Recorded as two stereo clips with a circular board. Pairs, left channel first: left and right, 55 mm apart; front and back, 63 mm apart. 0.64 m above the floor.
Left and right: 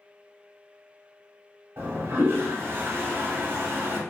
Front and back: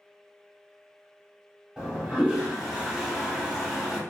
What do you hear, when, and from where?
1.8 s a toilet flushing: 100° right, 1.5 m